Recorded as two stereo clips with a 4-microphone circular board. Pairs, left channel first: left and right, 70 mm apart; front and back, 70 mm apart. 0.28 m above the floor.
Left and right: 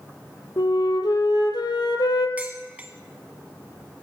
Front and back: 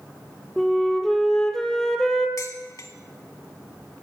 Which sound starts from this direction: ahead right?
Dishes clattering, at 2.4 s.